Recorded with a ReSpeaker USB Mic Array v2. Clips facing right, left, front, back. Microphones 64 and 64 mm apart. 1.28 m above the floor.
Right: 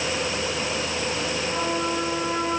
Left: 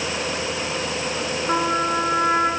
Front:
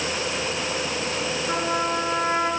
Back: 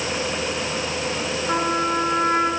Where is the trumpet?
110° left, 7.5 m.